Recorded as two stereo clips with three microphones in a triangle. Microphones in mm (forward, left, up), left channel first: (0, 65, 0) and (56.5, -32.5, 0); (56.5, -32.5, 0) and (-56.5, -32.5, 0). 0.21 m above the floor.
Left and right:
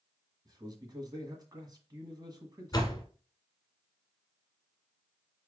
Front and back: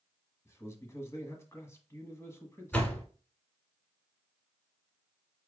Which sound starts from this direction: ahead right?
A man speaking, at 0.5 s.